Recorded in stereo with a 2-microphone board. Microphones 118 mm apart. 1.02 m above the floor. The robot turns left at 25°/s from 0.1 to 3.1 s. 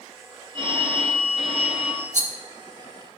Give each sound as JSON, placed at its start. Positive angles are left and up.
{"t": 0.5, "sound": "a phone ringing", "azimuth_deg": -45, "distance_m": 2.0}
{"t": 2.1, "sound": "a rattle", "side_deg": -70, "distance_m": 1.2}